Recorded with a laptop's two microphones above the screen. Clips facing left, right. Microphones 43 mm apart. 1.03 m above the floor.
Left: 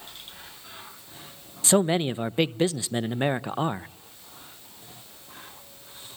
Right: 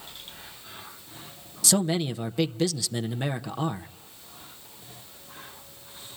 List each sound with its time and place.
1.6 s a man speaking: 30° left (ahead or behind), 0.6 m